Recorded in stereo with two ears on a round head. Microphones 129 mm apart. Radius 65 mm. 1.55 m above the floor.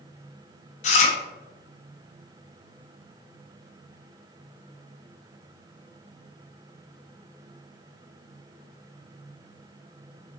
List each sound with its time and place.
0.8 s chewing: 50° left (ahead or behind), 0.5 m